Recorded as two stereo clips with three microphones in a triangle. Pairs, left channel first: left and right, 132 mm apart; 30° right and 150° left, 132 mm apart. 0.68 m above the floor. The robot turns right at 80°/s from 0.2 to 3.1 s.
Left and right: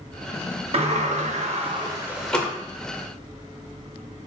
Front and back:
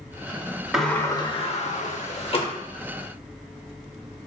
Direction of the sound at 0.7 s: 125° right.